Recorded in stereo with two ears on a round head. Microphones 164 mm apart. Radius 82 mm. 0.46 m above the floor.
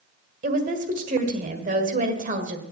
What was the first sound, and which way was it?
A woman speaking, 45° right (ahead or behind).